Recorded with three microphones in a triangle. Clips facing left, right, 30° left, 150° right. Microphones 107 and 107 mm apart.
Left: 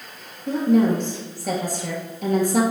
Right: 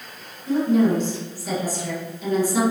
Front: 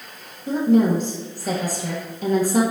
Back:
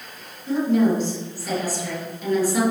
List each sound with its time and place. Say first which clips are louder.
0.5 s a woman speaking: even, front 2 dB; 65° left, 2.5 m